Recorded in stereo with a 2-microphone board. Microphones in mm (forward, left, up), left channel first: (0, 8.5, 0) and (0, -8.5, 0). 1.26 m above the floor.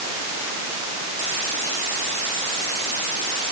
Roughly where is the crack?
No crack in this recording.